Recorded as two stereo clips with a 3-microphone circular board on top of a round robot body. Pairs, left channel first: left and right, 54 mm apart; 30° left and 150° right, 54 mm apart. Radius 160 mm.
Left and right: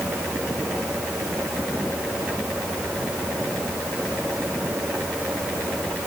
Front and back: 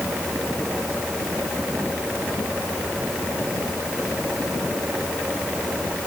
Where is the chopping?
I don't hear chopping.